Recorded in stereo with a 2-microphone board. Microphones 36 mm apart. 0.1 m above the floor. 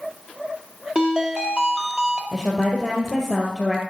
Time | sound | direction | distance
0.9 | a ringtone | 25° right (ahead or behind) | 2 m
2.3 | a woman speaking | 5° right (ahead or behind) | 2 m